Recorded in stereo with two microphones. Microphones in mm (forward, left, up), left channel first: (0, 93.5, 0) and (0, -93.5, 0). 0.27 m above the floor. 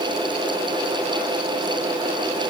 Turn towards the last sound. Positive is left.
No sound to turn to.